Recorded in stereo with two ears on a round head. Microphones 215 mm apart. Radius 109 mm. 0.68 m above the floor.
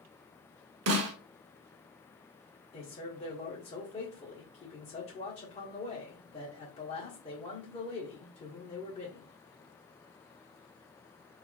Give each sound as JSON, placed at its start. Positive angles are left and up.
{"t": 0.9, "sound": "a snare drum", "side_deg": -65, "distance_m": 0.7}
{"t": 2.7, "sound": "a man speaking", "side_deg": 30, "distance_m": 1.8}